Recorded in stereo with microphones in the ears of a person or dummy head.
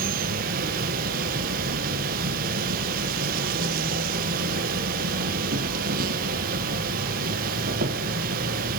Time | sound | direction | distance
0.0 | an insect | 50° right (ahead or behind) | 1.3 m